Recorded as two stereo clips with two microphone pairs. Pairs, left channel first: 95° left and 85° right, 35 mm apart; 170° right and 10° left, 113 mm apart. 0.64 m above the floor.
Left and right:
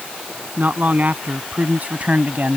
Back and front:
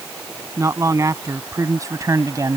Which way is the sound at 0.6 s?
50° right.